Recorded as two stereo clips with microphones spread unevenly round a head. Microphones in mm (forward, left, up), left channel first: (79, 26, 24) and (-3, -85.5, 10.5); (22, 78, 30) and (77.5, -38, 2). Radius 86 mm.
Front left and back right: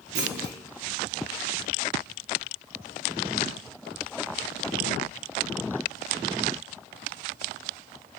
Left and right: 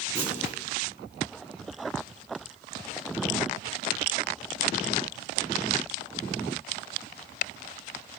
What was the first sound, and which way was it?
A clunk, 150° right.